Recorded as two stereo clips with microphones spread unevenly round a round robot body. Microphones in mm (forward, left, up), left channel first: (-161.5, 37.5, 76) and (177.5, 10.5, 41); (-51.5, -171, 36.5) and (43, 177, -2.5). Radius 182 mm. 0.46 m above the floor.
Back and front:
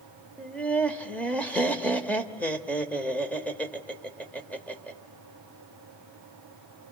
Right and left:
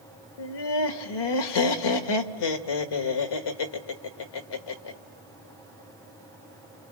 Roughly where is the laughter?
Right.